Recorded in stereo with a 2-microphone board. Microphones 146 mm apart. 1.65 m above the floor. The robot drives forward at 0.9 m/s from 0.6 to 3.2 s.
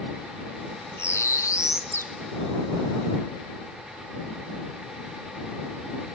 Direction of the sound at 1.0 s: 15° left (ahead or behind).